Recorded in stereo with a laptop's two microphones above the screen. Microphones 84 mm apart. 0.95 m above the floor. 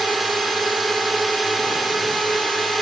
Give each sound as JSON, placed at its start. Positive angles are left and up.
{"t": 0.0, "sound": "a drone", "side_deg": 0}